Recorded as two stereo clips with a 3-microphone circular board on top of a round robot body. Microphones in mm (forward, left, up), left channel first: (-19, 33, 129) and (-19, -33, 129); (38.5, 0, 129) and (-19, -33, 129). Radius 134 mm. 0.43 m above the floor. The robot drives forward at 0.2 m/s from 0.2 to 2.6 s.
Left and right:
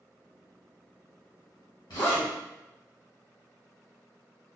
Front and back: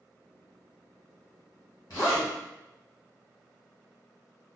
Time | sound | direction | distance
1.9 | a zipper | 75° left | 1.8 m